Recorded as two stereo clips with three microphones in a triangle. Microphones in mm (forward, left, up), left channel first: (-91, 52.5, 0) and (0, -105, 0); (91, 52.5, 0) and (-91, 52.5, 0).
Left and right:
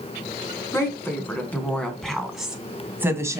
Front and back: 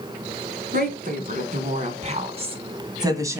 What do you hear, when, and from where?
0.7 s a woman speaking: 165° right, 2.5 m; by 3.4 s 115° right, 1.8 m